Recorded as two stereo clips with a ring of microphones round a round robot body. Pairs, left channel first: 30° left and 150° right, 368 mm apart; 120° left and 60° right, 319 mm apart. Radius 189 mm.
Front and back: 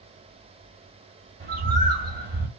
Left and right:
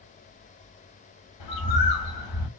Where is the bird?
145° left, 2 m.